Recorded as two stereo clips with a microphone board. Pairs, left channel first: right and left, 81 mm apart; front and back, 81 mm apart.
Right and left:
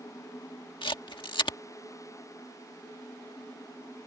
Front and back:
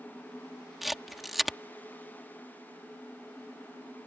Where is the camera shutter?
90° right.